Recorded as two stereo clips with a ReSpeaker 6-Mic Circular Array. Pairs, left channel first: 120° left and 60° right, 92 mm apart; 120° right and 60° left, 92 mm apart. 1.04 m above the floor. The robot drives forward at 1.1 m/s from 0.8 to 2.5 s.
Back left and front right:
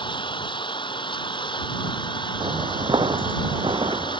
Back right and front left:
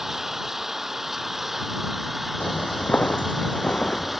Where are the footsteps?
50° right; by 4.2 s 40° right.